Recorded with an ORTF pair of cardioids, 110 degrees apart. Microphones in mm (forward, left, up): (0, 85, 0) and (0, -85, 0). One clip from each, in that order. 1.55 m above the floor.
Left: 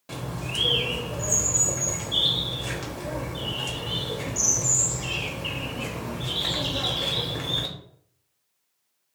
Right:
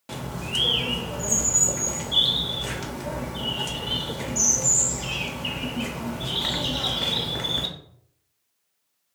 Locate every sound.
0.1 s a bird: 15° right, 0.6 m